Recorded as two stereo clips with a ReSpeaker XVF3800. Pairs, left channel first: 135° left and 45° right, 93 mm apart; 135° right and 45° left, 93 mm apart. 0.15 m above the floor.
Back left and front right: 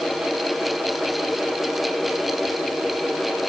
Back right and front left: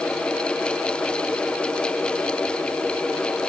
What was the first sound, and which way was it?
Only background noise.